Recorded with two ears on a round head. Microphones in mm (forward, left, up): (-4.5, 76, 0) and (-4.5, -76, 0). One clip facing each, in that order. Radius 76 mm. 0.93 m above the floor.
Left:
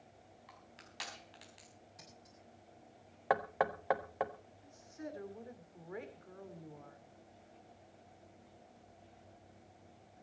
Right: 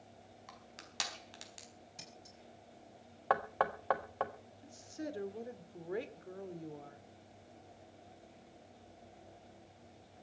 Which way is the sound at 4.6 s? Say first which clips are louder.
Right 4 dB; 40° right (ahead or behind).